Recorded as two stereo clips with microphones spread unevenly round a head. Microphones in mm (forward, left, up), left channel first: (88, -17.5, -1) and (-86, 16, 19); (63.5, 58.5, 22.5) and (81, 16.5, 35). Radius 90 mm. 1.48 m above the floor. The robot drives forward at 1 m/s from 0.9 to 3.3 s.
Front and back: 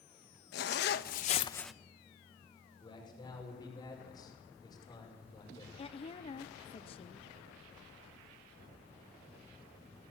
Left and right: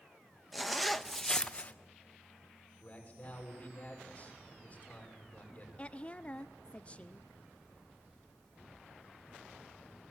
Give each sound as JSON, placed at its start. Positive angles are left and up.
{"t": 0.5, "sound": "a zipper", "azimuth_deg": 10, "distance_m": 0.9}
{"t": 2.8, "sound": "a man speaking", "azimuth_deg": 55, "distance_m": 6.5}
{"t": 5.8, "sound": "a woman speaking", "azimuth_deg": 50, "distance_m": 0.6}